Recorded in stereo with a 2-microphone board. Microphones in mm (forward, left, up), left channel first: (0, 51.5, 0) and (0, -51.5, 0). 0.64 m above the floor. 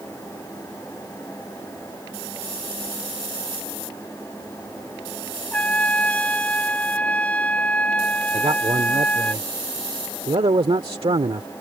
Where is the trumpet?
15° left (ahead or behind).